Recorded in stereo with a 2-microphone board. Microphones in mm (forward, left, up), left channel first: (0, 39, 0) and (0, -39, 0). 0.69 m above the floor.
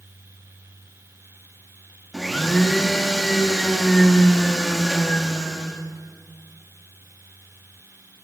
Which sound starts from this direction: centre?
A blender, at 2.1 s.